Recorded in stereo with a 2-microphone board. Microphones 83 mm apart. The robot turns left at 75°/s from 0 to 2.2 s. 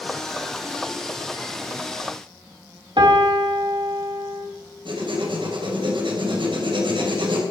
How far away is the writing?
About 3 m.